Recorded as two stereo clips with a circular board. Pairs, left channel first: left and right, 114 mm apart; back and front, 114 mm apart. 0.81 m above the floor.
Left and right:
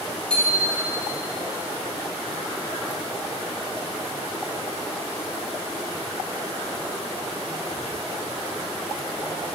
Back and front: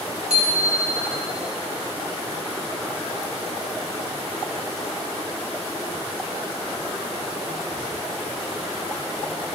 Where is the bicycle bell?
10° left, 6 m.